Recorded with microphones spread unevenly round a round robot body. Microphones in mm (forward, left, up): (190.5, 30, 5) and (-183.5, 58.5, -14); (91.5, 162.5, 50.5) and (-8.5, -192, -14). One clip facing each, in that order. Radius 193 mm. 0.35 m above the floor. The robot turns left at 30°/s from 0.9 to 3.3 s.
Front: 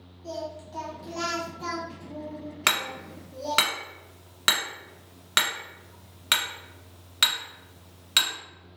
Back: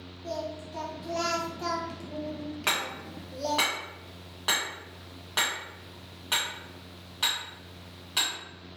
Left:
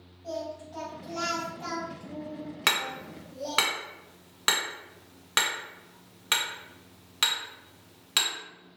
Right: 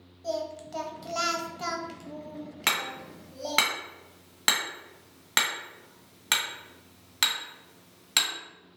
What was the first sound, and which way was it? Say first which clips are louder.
Singing: even, right 3 dB; 90° right.